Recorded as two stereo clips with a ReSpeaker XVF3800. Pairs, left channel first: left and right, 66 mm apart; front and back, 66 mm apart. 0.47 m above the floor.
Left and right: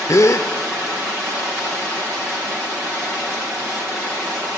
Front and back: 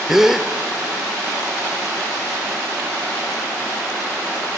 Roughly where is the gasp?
Left.